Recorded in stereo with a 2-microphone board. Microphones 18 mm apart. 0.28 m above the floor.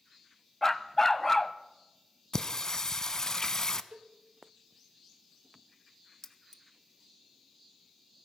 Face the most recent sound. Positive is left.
turn(degrees=25)  # may be behind; listen again after turning